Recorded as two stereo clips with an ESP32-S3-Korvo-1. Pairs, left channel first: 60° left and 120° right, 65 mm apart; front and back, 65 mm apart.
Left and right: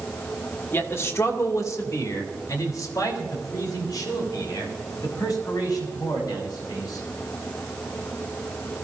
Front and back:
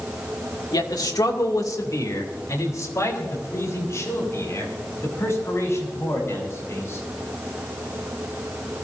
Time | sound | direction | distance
0.7 | a man speaking | 5° left | 1.9 m